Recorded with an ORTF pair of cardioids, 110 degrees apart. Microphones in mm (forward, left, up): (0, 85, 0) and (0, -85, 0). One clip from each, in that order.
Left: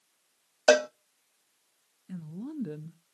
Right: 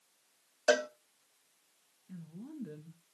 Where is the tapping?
I don't hear tapping.